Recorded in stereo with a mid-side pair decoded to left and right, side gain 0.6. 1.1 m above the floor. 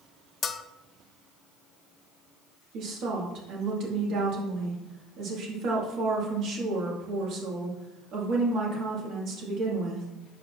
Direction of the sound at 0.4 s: 35° left.